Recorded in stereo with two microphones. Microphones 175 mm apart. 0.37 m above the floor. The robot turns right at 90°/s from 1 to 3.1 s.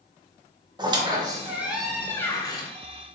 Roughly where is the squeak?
Right.